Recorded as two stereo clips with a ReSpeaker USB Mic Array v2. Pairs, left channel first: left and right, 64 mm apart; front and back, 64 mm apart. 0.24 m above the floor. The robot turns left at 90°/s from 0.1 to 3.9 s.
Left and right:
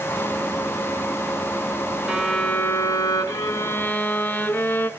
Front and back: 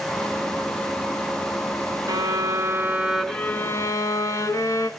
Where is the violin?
165° right, 1.1 m; by 4.9 s 30° left, 1.1 m.